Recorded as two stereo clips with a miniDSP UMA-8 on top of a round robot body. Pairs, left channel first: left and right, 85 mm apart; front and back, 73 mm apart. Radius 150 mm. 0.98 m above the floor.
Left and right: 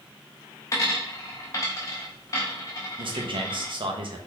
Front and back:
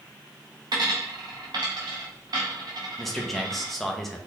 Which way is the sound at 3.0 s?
85° right.